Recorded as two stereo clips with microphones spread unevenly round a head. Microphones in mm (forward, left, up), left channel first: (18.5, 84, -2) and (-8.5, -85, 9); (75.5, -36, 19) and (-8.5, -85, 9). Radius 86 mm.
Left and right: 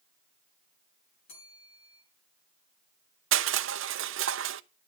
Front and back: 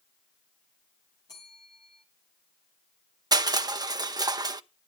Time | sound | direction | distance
1.3 | a bell | 95° left | 5.5 m
3.3 | crushing | 105° right | 0.8 m